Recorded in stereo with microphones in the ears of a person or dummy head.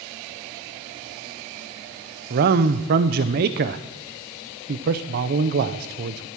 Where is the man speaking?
40° right (ahead or behind), 0.6 m.